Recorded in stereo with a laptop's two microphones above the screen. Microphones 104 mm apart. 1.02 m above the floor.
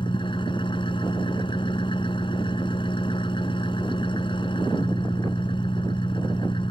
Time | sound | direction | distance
0.0 | an engine running | 55° left (ahead or behind) | ?